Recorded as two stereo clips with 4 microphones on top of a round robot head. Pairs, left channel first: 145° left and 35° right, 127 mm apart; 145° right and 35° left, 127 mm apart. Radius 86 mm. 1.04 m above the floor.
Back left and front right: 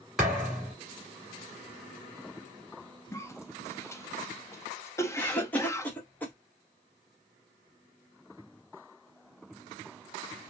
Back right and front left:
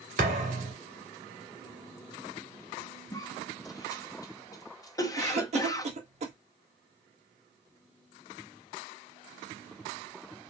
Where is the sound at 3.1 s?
170° right, 0.8 m.